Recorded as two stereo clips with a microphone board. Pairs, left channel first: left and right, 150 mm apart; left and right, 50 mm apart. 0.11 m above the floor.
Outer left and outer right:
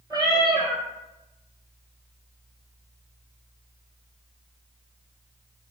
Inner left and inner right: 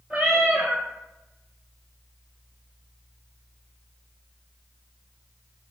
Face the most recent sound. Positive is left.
turn(degrees=-25)  # may be behind; listen again after turning